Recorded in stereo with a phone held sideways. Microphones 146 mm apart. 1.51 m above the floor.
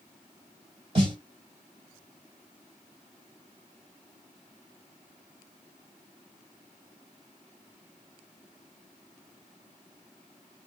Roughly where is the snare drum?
Right.